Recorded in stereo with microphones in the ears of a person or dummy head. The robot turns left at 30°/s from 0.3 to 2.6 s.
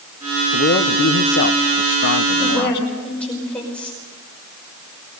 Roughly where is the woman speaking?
Centre.